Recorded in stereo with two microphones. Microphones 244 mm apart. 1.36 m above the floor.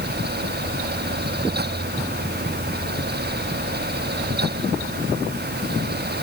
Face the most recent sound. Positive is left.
No sound to turn to.